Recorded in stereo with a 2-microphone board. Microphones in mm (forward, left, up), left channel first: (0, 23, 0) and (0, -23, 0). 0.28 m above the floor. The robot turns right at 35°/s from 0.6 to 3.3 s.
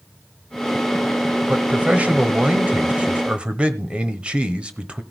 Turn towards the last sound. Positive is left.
turn(degrees=-20)  # may be behind; listen again after turning